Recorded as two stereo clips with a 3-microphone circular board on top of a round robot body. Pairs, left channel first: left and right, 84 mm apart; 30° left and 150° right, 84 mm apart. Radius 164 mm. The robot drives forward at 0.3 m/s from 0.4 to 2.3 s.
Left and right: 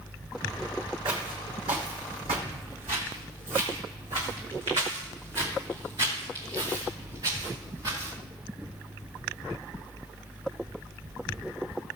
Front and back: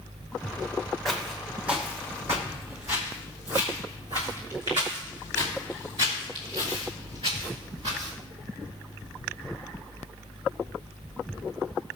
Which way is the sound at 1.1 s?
60° right.